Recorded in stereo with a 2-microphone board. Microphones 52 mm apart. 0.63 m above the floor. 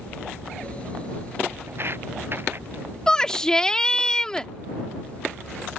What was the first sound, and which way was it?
Footsteps, 50° right (ahead or behind).